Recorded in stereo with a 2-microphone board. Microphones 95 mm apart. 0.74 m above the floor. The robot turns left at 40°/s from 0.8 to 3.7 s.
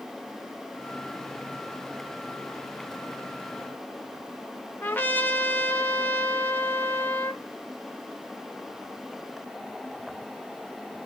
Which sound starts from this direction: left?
A trumpet, at 4.8 s.